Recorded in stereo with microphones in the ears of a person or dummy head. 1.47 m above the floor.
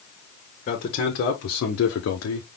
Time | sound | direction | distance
0.7 | a man speaking | 45° left (ahead or behind) | 1.7 m